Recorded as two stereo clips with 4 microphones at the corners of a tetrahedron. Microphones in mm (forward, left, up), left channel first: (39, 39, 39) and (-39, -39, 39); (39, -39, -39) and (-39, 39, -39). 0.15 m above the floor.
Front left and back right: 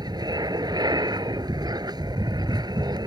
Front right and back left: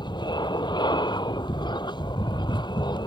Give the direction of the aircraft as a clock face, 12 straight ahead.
3 o'clock.